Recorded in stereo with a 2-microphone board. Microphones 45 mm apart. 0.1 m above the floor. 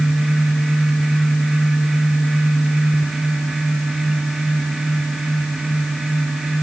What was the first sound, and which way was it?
Only background noise.